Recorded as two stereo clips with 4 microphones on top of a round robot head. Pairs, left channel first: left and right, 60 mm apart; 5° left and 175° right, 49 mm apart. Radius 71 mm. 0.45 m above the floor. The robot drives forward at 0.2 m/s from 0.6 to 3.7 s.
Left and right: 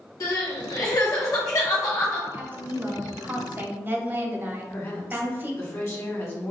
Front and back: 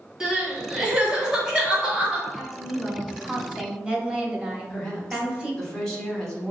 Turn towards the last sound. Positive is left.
turn(degrees=80)